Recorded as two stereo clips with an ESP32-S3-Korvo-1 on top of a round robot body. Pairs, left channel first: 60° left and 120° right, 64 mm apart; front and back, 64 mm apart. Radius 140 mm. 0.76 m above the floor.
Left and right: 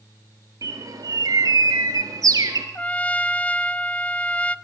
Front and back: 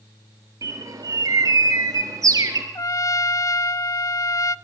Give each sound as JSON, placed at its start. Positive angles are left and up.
{"t": 0.6, "sound": "a bird", "azimuth_deg": -150, "distance_m": 3.0}
{"t": 2.8, "sound": "a trumpet", "azimuth_deg": -5, "distance_m": 0.8}